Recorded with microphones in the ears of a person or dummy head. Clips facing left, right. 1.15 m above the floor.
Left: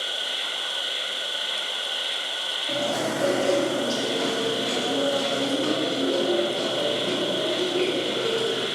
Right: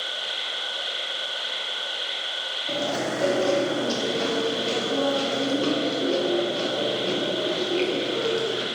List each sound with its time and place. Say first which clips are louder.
0.0 s an insect: left 1 dB; 60° right (ahead or behind), 1.6 m
2.7 s chewing: left 1 dB; 25° right (ahead or behind), 0.5 m